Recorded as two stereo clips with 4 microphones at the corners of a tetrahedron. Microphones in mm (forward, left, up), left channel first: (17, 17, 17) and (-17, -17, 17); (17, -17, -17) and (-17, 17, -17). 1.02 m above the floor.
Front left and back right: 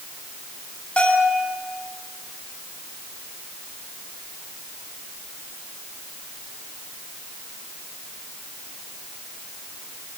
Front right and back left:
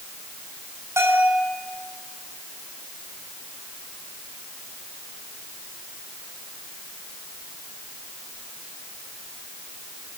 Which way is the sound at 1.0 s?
110° left.